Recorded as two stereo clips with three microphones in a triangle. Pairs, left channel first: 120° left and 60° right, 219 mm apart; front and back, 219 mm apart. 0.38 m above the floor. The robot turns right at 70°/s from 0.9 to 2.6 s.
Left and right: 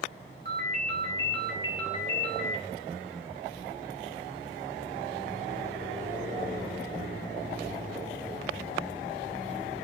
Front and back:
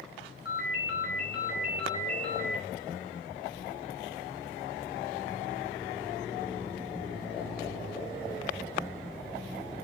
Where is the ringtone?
15° right, 1.5 m; by 2.6 s 105° left, 1.5 m.